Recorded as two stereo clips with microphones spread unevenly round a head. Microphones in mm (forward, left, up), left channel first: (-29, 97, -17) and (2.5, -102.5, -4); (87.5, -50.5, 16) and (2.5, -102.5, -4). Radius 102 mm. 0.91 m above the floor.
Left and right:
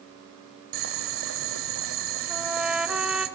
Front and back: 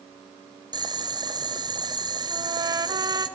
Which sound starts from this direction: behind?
A trumpet, at 2.3 s.